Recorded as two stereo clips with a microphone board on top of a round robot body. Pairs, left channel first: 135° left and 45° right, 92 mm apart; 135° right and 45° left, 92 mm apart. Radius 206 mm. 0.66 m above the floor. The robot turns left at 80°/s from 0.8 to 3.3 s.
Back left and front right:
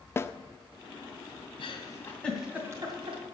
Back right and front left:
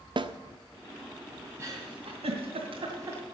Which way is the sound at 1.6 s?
110° left.